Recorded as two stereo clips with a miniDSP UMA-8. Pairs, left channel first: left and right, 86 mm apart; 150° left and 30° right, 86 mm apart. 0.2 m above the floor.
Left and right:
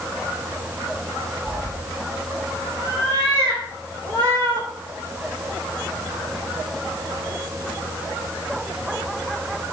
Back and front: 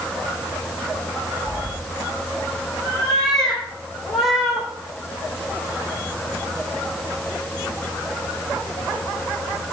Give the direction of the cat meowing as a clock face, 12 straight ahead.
4 o'clock.